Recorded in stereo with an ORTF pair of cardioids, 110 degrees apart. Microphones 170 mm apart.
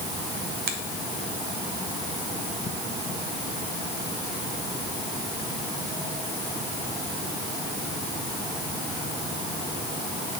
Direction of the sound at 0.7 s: 70° right.